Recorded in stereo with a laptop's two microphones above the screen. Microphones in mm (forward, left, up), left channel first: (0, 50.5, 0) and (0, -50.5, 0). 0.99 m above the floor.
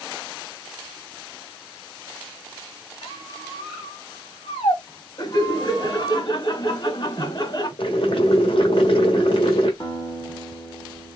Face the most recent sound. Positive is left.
turn(degrees=50)  # may be behind; listen again after turning